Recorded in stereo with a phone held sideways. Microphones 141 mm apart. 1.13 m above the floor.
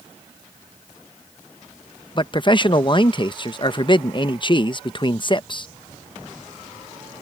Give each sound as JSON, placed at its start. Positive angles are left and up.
{"t": 2.1, "sound": "a man speaking", "side_deg": 35}